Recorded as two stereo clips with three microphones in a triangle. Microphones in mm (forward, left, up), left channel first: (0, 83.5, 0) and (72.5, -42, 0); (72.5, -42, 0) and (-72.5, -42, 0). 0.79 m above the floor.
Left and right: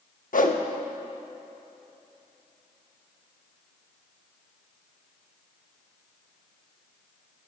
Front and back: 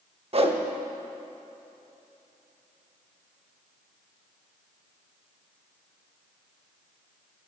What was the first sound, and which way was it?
A whoosh, 135° left.